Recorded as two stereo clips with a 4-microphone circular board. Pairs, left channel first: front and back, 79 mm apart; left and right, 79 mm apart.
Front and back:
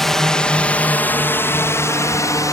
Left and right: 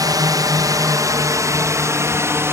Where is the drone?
85° right; by 2.5 s 40° right.